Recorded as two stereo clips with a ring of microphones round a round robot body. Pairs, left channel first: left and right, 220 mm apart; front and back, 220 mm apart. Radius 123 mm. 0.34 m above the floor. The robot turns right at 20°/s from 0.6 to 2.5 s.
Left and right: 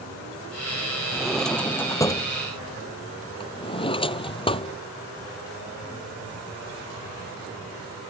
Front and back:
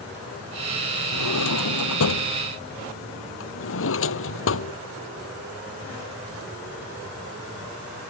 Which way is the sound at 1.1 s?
5° right.